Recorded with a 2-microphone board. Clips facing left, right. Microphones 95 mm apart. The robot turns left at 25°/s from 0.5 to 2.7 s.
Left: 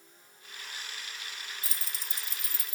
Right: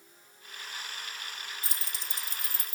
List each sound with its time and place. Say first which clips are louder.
1.6 s keys jangling: right 2 dB; 45° left (ahead or behind), 0.7 m